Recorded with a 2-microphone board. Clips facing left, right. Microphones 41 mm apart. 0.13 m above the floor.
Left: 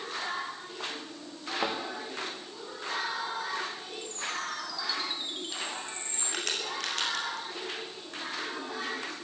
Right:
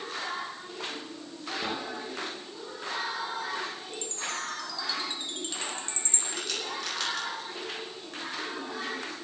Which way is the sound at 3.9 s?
5° left (ahead or behind).